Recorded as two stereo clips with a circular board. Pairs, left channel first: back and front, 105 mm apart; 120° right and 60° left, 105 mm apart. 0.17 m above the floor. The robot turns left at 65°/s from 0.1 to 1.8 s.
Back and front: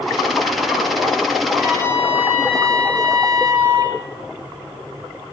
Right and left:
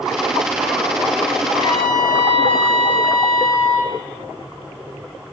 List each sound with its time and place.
1.5 s a trumpet: 65° left, 5 m; by 3.9 s 45° left, 5 m